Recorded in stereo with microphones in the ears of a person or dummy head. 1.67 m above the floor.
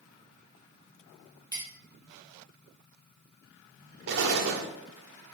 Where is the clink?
20° left (ahead or behind), 1.1 m.